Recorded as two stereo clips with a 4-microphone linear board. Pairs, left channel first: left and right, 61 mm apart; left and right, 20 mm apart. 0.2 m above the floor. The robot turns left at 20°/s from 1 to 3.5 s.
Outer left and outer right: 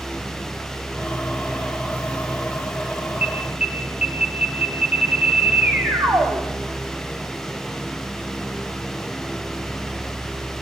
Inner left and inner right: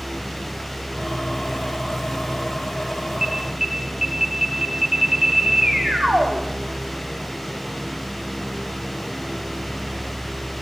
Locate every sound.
3.2 s an alarm: 25° right (ahead or behind), 4 m; by 6.4 s 20° right (ahead or behind), 4 m